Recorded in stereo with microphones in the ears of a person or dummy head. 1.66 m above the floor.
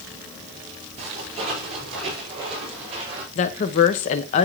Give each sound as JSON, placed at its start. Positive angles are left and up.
{"t": 1.0, "sound": "footsteps", "side_deg": -40, "distance_m": 4.5}
{"t": 3.4, "sound": "a woman speaking", "side_deg": 35, "distance_m": 0.7}